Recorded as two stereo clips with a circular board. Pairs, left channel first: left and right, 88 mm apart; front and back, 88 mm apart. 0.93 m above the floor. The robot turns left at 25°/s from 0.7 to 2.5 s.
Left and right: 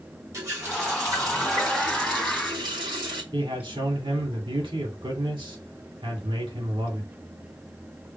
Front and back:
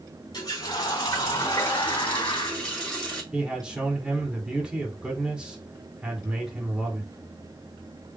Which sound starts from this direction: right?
A man speaking, at 3.3 s.